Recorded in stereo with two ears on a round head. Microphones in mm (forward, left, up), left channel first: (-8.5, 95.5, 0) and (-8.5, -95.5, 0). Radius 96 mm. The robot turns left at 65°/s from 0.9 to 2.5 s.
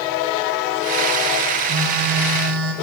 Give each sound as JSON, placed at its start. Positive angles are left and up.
{"t": 1.7, "sound": "a phone buzzing", "azimuth_deg": -60, "distance_m": 0.7}